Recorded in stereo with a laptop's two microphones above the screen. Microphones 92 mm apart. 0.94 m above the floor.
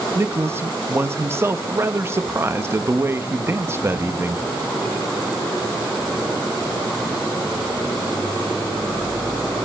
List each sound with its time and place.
0.1 s a man speaking: 30° right (ahead or behind), 1.1 m